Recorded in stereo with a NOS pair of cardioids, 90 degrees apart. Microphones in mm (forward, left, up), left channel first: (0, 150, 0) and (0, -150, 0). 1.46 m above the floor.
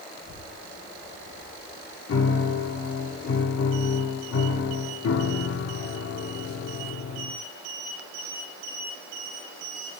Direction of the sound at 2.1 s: 60° left.